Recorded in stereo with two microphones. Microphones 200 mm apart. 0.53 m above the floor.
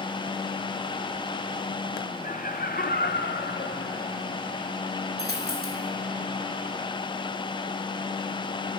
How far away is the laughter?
About 0.9 m.